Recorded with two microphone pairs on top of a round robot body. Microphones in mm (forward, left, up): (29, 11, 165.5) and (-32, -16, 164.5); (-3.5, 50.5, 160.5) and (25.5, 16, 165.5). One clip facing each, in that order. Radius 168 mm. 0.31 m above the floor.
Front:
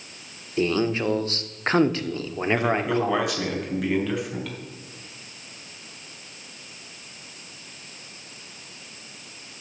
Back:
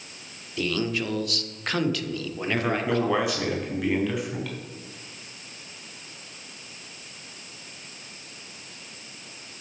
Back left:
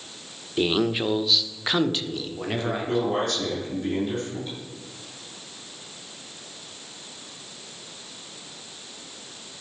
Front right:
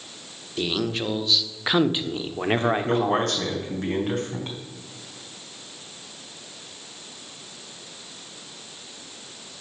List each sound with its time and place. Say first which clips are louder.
0.6 s a man speaking: front 4 dB, back left 3 dB; 75° left, 1.4 m; by 3.6 s 45° right, 1.5 m
2.6 s a man speaking: even, front right 2 dB; 65° right, 3.5 m